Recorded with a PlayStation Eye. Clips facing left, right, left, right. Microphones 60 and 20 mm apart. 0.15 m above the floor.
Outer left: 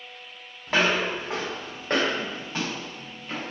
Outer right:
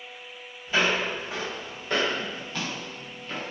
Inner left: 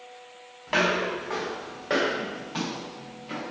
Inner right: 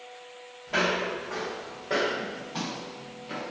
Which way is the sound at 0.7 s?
75° left (ahead or behind).